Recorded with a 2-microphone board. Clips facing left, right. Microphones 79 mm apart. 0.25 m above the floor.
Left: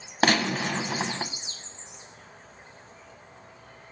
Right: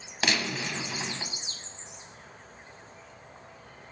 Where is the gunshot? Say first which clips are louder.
Left 7 dB; 45° left (ahead or behind), 0.5 m.